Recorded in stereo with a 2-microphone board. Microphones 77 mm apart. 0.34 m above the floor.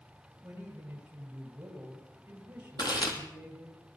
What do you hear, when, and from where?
0.4 s a man speaking: 20° right (ahead or behind), 8 m
2.8 s chewing: 65° left (ahead or behind), 3.5 m